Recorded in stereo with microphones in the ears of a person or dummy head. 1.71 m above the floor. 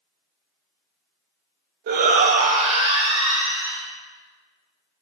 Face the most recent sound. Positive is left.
turn(degrees=-30)  # may be behind; listen again after turning